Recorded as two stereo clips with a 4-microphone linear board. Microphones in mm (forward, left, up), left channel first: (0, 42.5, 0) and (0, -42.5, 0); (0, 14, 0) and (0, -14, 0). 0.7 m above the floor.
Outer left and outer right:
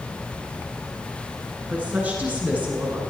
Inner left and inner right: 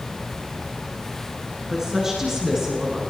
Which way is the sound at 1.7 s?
20° right (ahead or behind).